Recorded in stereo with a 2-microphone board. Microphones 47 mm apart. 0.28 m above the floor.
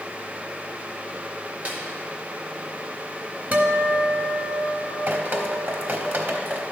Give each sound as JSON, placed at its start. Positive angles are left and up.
{"t": 1.6, "sound": "a snare drum", "side_deg": -35, "distance_m": 1.9}
{"t": 3.5, "sound": "a guitar", "side_deg": -40, "distance_m": 1.0}
{"t": 5.1, "sound": "dripping", "side_deg": -45, "distance_m": 1.0}